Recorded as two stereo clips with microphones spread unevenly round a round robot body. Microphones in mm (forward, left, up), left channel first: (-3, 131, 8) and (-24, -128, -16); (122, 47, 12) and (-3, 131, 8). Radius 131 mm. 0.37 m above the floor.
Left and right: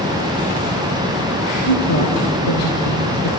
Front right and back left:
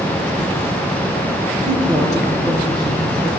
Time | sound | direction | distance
1.6 | a woman speaking | 80° left | 9.5 m